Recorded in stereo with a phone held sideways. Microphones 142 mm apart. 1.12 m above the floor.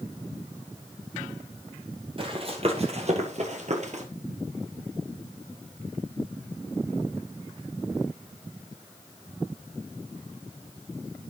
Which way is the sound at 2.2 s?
40° right (ahead or behind).